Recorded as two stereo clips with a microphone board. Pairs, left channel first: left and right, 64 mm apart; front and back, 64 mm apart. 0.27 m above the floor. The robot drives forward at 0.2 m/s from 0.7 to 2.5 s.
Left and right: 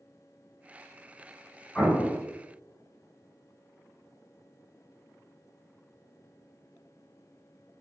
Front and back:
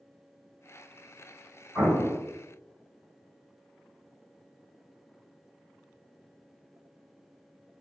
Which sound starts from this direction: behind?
An explosion, at 1.8 s.